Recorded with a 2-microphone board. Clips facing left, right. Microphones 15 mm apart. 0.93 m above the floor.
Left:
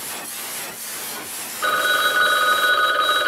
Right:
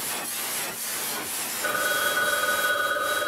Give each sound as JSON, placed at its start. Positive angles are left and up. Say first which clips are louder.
{"t": 1.6, "sound": "a phone ringing", "louder": "left 7 dB", "side_deg": 70, "distance_m": 0.5}